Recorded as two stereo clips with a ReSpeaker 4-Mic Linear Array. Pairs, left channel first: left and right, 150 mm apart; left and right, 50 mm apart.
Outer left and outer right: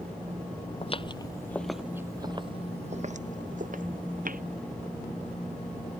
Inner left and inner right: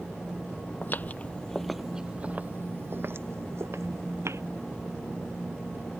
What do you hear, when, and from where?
0.8 s footsteps: 40° left (ahead or behind); by 4.4 s 70° right (ahead or behind)